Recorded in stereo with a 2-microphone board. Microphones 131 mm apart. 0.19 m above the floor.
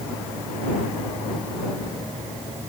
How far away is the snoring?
I don't hear snoring.